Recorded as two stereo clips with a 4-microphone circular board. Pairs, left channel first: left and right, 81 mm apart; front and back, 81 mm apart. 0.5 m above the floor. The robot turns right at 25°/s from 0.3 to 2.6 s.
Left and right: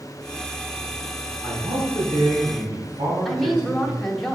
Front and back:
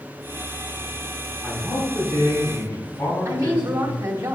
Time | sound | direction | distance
1.4 | a man speaking | 90° right | 3 m
3.2 | a woman speaking | 175° left | 0.9 m